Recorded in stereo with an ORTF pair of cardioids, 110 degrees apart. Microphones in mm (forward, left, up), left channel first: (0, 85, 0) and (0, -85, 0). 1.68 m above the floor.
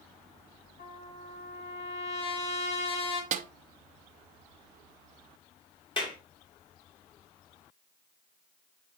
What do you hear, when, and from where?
0.8 s a trumpet: 65° left, 3.5 m
3.3 s a snare drum: 45° right, 0.8 m
6.0 s a clap: 30° left, 3 m